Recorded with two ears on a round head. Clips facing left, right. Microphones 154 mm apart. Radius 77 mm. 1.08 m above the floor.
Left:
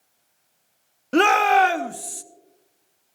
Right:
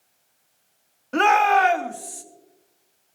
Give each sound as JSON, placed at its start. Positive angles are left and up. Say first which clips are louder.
{"t": 1.1, "sound": "a shout", "louder": "left 1 dB", "side_deg": 40, "distance_m": 0.7}